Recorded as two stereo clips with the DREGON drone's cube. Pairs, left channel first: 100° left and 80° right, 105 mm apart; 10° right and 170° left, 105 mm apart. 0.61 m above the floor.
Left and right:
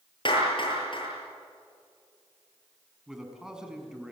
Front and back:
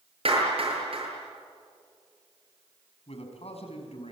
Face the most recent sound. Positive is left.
turn(degrees=5)